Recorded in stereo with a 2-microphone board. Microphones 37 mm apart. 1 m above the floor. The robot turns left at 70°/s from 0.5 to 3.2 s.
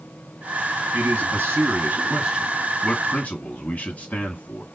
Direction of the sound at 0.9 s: 65° right.